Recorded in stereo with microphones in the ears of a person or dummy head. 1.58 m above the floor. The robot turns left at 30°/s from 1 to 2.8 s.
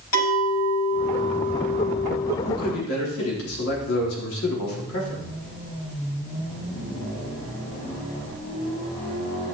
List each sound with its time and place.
0.1 s a clink: 95° left, 5.5 m; by 2.3 s 55° left, 5.5 m
2.4 s a man speaking: 90° left, 4 m; by 5.3 s 80° left, 4 m